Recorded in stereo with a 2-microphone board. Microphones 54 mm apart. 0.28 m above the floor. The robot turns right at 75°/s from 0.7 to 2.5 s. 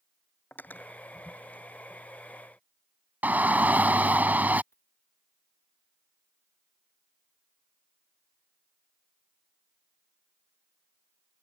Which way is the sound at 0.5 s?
35° left (ahead or behind).